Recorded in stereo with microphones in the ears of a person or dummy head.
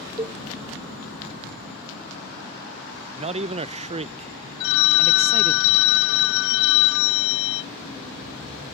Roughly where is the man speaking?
Right.